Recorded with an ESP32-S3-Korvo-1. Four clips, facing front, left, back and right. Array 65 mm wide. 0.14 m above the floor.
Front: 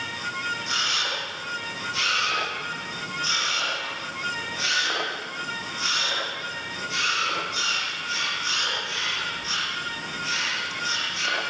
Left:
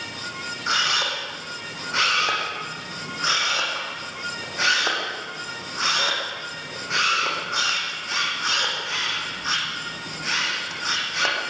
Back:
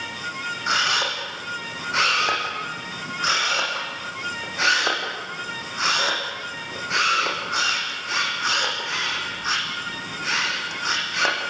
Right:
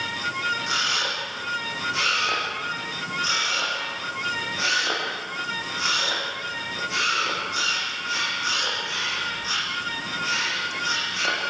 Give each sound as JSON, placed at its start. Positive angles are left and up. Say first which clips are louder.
{"t": 0.7, "sound": "a camera shutter", "louder": "left 2 dB, back 5 dB", "azimuth_deg": 150, "distance_m": 8.5}